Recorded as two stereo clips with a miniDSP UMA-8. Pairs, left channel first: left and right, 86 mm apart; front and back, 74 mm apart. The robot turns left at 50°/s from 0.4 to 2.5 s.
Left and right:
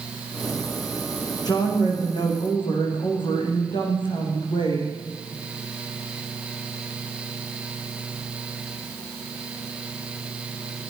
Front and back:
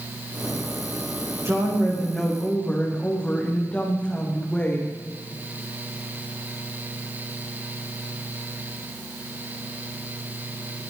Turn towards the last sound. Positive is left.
turn(degrees=75)